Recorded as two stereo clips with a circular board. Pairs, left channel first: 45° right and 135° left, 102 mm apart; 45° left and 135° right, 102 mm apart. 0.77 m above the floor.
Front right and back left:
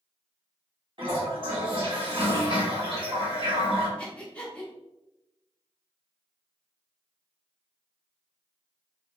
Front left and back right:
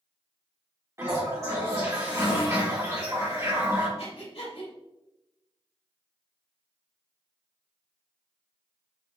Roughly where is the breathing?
Ahead left.